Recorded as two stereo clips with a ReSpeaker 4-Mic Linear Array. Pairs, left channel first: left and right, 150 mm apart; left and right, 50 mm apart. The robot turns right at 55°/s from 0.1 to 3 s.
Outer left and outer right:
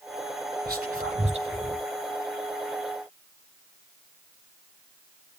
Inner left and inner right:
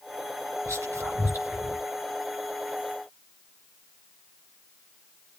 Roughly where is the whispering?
Right.